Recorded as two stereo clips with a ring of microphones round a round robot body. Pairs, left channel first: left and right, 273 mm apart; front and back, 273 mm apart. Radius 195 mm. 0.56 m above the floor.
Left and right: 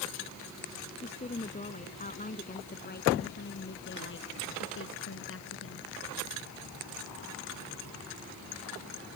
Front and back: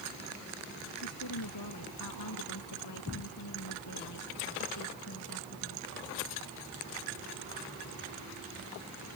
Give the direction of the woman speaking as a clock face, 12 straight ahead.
11 o'clock.